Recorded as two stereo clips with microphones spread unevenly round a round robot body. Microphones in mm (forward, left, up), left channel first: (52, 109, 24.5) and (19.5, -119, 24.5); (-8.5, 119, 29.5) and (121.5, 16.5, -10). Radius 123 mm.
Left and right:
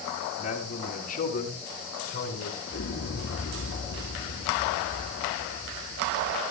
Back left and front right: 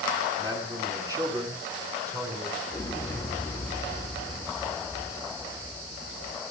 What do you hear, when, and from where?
0.4 s a man speaking: 25° left, 7 m; by 2.6 s 35° left, 8 m
2.7 s an explosion: 60° left, 1.9 m